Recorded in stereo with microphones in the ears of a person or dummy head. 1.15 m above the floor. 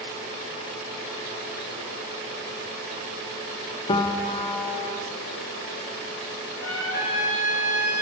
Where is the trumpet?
60° left (ahead or behind), 1.9 m.